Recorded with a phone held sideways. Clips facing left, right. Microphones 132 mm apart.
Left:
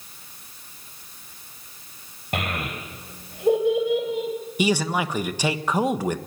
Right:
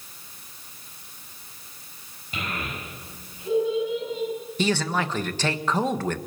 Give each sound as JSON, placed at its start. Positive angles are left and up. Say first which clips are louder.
{"t": 2.3, "sound": "a child speaking", "louder": "left 4 dB", "side_deg": 70, "distance_m": 4.0}
{"t": 4.6, "sound": "a man speaking", "louder": "left 2 dB", "side_deg": 10, "distance_m": 1.3}